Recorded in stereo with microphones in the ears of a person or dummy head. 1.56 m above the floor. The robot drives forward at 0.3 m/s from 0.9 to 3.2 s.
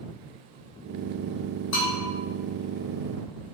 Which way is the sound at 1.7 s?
60° left (ahead or behind).